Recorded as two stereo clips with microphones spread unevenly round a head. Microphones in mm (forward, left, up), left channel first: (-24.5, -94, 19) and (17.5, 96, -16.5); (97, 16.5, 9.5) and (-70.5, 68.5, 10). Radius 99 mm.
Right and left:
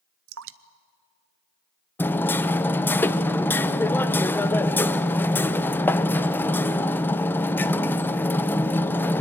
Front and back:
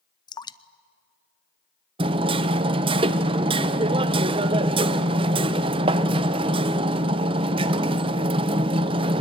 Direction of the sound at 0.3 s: 50° left.